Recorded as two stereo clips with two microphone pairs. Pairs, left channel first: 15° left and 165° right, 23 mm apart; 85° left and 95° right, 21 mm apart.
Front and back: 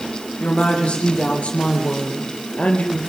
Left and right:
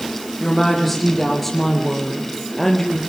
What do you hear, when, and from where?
0.4 s a woman speaking: 5° right, 7.5 m; by 3.0 s 10° left, 3.5 m